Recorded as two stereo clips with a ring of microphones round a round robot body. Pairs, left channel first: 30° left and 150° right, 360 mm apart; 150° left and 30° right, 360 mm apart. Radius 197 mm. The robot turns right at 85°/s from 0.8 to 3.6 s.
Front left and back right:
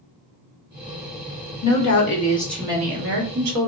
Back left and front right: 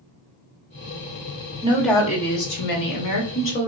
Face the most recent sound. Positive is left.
turn(degrees=-150)